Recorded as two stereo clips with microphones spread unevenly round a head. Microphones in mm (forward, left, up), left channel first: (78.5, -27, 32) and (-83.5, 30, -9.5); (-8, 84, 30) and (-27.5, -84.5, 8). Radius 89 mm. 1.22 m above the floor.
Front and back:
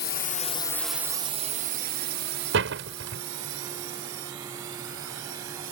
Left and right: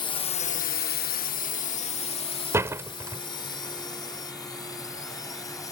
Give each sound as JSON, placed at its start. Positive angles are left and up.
{"t": 0.0, "sound": "a drone", "azimuth_deg": 15}
{"t": 2.5, "sound": "a door slam", "azimuth_deg": -175}